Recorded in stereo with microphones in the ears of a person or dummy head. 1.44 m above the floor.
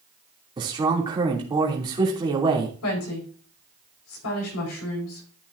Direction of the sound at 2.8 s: 85° left.